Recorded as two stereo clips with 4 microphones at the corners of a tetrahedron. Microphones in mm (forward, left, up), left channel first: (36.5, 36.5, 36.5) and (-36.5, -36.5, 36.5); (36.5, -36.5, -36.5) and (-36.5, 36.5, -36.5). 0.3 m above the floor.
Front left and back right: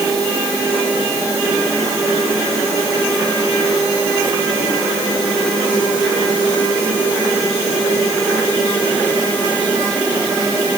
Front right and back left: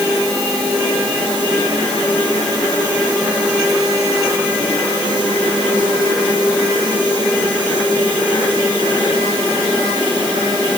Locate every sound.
Only background noise.